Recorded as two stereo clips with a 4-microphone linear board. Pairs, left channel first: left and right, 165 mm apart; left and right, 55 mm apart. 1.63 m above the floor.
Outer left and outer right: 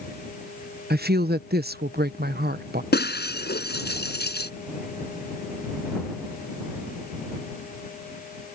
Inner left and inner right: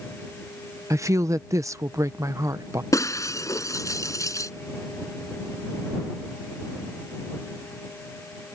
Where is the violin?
I don't hear a violin.